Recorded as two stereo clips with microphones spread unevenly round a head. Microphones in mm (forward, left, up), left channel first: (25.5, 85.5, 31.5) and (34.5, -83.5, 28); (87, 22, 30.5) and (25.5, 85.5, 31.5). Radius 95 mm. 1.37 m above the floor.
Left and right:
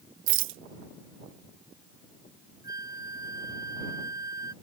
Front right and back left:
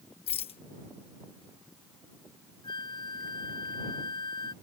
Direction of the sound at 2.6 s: 15° right.